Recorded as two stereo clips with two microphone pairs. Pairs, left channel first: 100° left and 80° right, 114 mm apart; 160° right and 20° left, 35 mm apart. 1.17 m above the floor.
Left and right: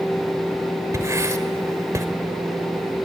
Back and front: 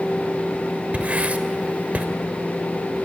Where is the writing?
20° right, 1.4 m.